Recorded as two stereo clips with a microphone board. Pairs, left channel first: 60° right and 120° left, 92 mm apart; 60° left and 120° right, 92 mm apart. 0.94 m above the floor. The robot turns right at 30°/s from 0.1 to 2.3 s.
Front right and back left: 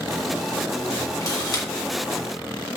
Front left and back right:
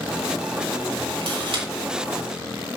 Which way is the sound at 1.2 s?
115° right.